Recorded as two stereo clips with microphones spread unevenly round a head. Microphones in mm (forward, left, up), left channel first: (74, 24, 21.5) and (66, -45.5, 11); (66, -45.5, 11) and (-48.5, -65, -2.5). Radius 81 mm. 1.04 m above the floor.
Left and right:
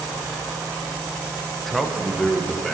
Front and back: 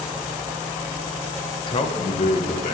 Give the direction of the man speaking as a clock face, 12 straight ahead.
1 o'clock.